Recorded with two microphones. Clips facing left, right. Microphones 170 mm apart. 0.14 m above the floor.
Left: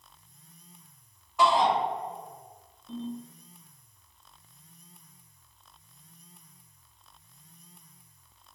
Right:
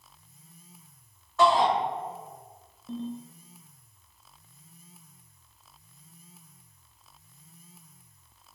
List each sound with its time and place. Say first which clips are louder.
1.4 s a shout: right 2 dB; 15° left (ahead or behind), 1.6 m
2.9 s a ringtone: right 1 dB; 40° right (ahead or behind), 0.7 m